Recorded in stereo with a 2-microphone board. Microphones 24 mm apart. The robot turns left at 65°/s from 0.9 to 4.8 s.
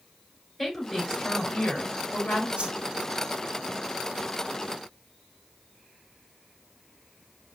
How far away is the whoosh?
About 0.8 m.